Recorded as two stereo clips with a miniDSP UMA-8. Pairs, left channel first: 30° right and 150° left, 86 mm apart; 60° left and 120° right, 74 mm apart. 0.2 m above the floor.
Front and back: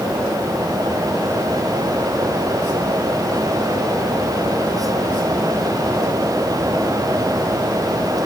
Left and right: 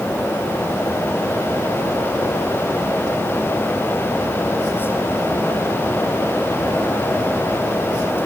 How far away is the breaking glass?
No breaking glass in this recording.